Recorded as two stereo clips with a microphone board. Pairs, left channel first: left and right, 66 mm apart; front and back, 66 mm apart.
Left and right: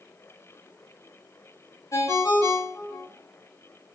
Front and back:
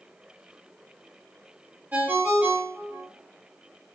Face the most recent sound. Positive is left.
turn(degrees=120)